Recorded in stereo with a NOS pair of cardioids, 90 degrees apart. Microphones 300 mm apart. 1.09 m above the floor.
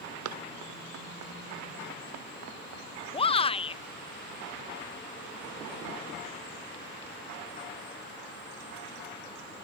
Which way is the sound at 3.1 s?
20° left.